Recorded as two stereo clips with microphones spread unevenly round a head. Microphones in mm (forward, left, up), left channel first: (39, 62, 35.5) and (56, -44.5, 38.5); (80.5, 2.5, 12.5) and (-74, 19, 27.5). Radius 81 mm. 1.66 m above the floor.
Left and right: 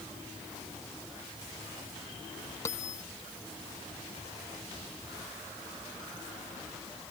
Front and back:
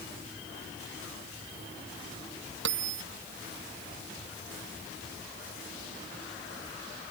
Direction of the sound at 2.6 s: 170° left.